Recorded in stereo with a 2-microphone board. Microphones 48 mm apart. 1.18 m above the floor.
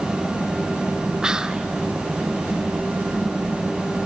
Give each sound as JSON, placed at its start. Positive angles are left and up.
{"t": 1.2, "sound": "whispering", "side_deg": -15, "distance_m": 0.6}